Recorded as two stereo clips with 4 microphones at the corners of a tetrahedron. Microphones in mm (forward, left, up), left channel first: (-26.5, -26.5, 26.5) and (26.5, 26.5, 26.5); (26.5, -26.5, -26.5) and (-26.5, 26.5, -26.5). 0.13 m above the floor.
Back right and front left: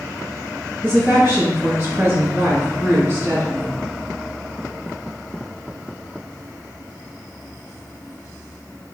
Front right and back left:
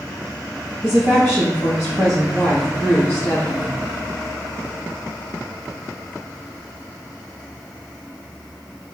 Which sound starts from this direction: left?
A woman speaking, at 0.8 s.